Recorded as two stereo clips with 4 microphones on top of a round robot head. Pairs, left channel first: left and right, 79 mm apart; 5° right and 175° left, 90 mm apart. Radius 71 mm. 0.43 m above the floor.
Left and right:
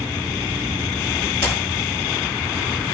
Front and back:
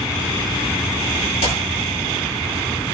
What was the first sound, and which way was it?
A clap, 10° left.